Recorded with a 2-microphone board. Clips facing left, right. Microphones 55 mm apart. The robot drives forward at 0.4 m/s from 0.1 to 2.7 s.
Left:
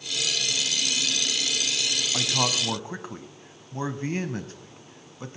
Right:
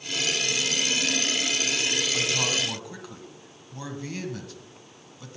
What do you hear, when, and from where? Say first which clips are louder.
2.1 s a man speaking: even; 30° left (ahead or behind), 1.1 m; by 5.4 s 35° left (ahead or behind), 1.1 m